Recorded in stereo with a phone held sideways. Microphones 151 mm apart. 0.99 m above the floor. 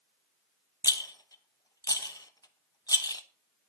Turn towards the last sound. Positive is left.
turn(degrees=25)  # may be behind; listen again after turning